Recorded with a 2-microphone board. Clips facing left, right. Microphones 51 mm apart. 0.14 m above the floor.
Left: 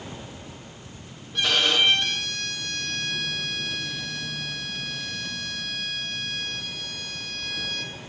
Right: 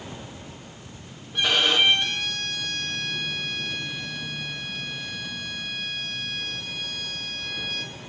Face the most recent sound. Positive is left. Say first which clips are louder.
# right 1 dB
turn(degrees=-10)  # may be behind; listen again after turning